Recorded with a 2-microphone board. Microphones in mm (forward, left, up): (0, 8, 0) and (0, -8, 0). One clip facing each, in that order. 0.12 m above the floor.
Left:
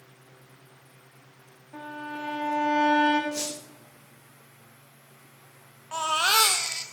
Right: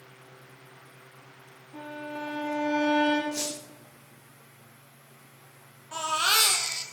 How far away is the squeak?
About 5.5 m.